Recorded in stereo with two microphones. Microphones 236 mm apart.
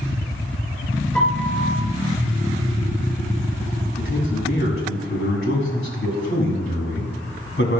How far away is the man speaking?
About 2 m.